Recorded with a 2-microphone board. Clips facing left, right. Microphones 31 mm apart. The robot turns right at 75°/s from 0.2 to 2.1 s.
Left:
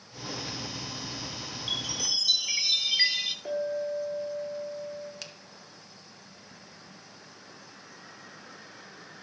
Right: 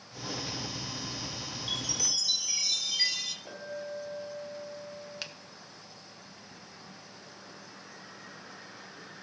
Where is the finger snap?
20° right (ahead or behind), 0.9 m.